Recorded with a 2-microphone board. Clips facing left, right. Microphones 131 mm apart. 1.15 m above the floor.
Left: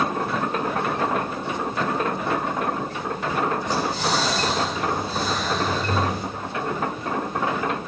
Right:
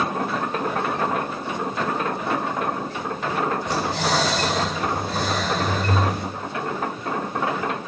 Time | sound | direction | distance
3.7 | breathing | 80° right | 4.5 m